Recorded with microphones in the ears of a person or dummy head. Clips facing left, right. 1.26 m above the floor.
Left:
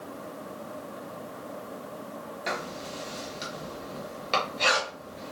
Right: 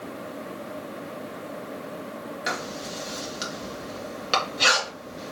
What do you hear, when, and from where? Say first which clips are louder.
2.5 s writing: even; 10° right (ahead or behind), 0.9 m